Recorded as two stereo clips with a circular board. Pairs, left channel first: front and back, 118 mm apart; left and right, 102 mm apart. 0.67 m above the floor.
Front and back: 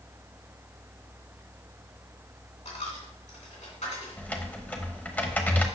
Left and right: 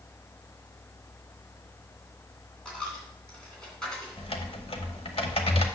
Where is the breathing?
No breathing in this recording.